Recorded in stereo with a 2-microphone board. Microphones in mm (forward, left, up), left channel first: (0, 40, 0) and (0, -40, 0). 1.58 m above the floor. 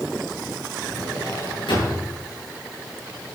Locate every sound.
0.8 s a drawer: 75° left (ahead or behind), 9 m